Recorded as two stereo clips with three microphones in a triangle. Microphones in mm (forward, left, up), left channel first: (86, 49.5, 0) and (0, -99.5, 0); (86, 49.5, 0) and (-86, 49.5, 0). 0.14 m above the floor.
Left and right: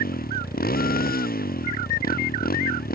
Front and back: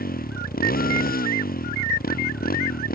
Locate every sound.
0.0 s a motorcycle: 30° left